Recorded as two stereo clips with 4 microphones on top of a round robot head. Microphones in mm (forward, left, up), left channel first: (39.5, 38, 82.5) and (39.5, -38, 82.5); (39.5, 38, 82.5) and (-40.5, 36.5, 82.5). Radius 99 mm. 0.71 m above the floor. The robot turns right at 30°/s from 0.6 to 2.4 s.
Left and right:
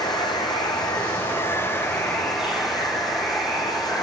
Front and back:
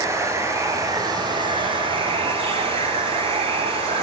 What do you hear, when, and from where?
0.0 s running water: 125° left, 3 m; by 4.0 s straight behind, 3 m